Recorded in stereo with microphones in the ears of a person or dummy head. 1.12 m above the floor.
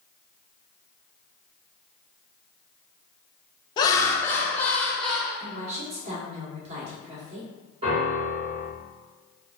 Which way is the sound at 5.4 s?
35° right (ahead or behind).